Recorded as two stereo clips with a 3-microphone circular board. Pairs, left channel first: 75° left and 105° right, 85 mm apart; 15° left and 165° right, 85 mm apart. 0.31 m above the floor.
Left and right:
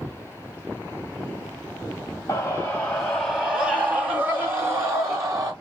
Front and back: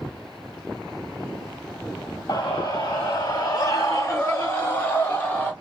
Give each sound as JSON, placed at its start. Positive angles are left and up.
{"t": 2.3, "sound": "a scream", "azimuth_deg": 25, "distance_m": 1.5}